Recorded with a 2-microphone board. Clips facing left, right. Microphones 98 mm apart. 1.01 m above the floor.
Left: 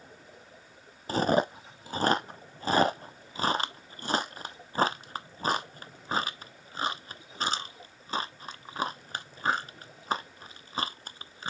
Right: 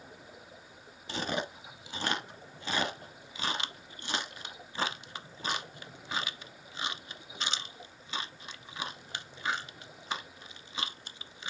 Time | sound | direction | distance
1.1 | chewing | 40° left (ahead or behind) | 0.5 m